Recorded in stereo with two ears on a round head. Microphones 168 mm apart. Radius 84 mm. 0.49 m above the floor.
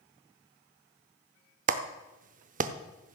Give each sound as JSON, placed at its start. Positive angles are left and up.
{"t": 1.7, "sound": "a clap", "side_deg": -40, "distance_m": 0.7}